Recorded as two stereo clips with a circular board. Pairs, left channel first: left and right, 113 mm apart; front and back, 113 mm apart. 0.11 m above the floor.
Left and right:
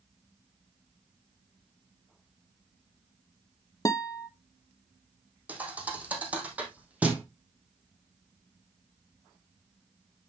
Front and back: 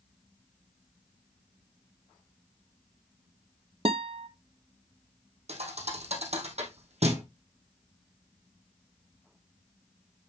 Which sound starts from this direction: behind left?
A guitar, at 3.9 s.